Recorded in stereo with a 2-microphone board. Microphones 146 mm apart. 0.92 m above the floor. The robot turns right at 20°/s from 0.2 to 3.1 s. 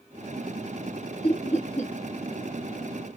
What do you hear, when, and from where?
1.2 s laughter: 40° left (ahead or behind), 1.0 m; by 1.9 s 55° left (ahead or behind), 1.0 m